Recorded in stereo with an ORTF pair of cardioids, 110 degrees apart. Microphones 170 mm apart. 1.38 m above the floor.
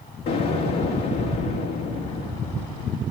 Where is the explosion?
70° left, 1.9 m.